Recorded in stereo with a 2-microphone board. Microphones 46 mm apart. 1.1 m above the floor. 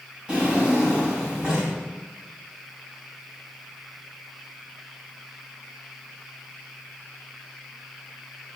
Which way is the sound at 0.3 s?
25° right (ahead or behind).